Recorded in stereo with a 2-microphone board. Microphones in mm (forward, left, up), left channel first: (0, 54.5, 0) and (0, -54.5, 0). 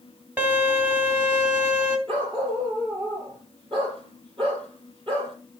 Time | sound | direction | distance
0.4 | a violin | 20° right (ahead or behind) | 1.8 m
2.1 | a dog barking | 50° right (ahead or behind) | 5 m